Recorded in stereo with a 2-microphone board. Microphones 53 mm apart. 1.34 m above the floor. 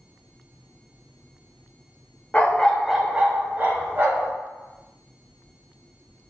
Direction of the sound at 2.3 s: 25° left (ahead or behind).